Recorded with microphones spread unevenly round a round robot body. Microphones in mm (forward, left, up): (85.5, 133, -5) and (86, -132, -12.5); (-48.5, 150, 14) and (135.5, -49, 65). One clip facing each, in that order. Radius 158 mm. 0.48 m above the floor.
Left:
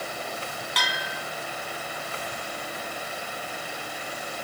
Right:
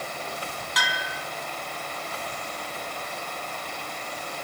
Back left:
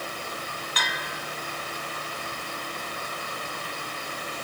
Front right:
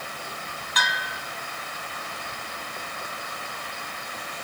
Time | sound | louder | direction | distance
0.8 | a bell | even, front right 1 dB | straight ahead | 3 m